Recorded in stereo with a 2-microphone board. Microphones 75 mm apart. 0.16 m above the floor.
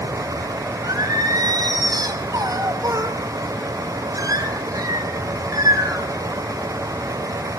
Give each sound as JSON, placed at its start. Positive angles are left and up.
{"t": 0.8, "sound": "singing", "side_deg": -50, "distance_m": 3.5}